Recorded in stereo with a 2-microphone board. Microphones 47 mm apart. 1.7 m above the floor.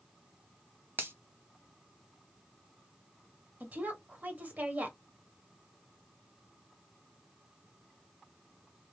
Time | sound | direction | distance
1.0 | a finger snap | 55° right (ahead or behind) | 0.8 m
3.6 | a woman speaking | 35° right (ahead or behind) | 1.5 m